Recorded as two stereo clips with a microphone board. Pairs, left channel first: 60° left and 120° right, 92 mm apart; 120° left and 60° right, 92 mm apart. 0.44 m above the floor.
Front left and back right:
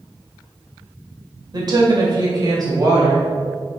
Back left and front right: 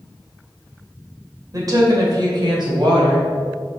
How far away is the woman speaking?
About 2 m.